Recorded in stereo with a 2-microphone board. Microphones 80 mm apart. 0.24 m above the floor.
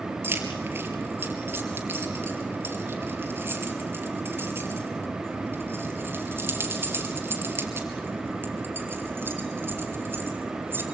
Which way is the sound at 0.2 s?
30° right (ahead or behind).